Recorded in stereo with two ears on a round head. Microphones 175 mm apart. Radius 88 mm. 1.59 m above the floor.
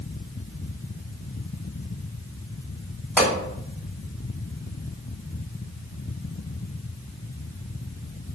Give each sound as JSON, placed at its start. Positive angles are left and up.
{"t": 3.2, "sound": "a pop", "side_deg": -5, "distance_m": 1.8}